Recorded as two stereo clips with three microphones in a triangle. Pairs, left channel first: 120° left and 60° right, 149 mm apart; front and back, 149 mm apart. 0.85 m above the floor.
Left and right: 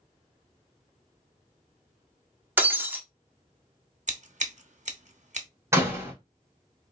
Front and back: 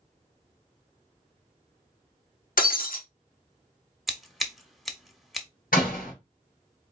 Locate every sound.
2.6 s breaking glass: 20° left, 1.0 m
4.1 s scissors: 90° right, 0.8 m
5.7 s a door slam: 10° left, 2.0 m